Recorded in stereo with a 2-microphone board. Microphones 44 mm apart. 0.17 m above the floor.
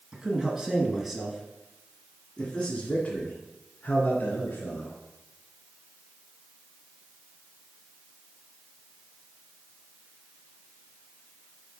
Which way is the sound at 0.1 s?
25° right (ahead or behind).